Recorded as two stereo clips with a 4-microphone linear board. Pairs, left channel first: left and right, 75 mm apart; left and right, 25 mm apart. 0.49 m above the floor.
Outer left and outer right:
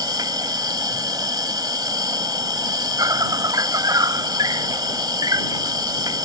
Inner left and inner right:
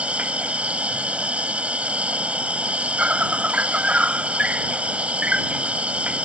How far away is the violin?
No violin in this recording.